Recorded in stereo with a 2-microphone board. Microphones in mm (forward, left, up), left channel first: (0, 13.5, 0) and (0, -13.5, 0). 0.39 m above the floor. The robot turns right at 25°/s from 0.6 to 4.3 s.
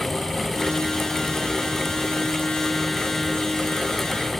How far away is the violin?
I don't hear a violin.